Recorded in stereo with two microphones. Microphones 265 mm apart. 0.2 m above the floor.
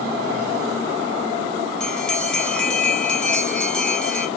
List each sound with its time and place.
1.8 s a bell: 5° left (ahead or behind), 0.7 m